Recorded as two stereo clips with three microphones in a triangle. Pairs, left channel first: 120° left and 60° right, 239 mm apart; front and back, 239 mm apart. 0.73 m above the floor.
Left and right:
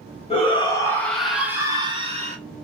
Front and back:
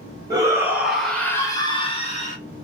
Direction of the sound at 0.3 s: 130° left.